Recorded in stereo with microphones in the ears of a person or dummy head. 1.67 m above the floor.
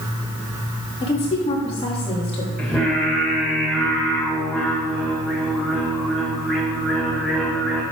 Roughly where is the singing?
Centre.